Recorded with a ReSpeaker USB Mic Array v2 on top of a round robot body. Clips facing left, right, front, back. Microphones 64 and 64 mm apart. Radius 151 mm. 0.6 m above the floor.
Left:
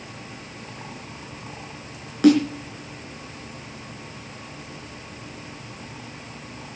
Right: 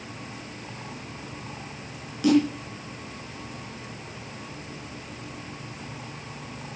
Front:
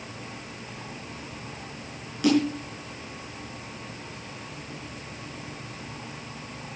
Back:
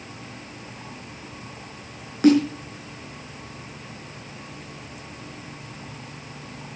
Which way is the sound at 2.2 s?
130° left.